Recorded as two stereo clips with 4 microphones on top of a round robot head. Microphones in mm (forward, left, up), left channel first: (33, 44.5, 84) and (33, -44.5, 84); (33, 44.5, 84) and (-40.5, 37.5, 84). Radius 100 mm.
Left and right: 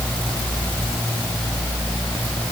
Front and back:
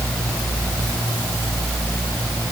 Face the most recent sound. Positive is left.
No sound to turn to.